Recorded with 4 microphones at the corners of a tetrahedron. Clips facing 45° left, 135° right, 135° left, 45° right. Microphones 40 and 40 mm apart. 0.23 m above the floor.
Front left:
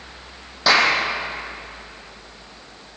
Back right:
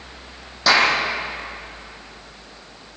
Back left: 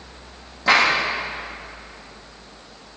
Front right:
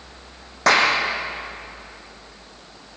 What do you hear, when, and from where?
0.7 s a clap: 40° right, 7 m